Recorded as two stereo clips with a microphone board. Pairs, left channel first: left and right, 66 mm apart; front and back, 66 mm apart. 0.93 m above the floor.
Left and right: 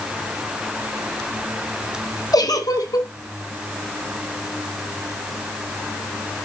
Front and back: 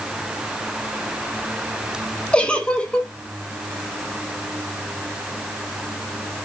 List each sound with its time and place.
2.3 s a giggle: 70° left, 1.3 m